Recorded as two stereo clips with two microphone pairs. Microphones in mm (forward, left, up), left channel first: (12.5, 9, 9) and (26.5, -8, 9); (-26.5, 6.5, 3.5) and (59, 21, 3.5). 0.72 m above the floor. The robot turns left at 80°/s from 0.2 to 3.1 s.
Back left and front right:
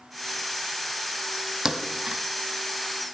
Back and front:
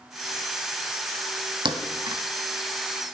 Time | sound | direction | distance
1.6 | a thud | 20° left | 1.2 m